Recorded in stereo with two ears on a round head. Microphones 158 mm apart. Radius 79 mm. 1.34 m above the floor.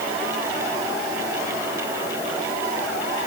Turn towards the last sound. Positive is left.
No sound to turn to.